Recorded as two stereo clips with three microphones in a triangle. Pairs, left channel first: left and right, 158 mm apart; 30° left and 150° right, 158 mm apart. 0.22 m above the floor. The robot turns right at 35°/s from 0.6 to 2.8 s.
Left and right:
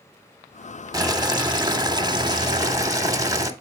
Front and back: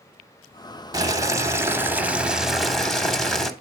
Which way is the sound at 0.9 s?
120° right.